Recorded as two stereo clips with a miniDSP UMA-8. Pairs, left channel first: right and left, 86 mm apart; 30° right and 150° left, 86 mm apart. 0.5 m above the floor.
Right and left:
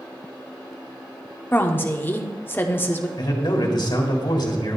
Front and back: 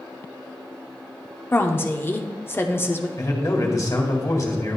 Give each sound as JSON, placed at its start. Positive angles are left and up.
{"t": 1.5, "sound": "a woman speaking", "azimuth_deg": -55, "distance_m": 0.8}
{"t": 3.2, "sound": "a man speaking", "azimuth_deg": -70, "distance_m": 1.9}